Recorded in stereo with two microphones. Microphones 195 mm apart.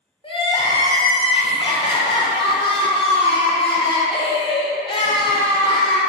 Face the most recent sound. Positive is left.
turn(degrees=25)  # may be behind; listen again after turning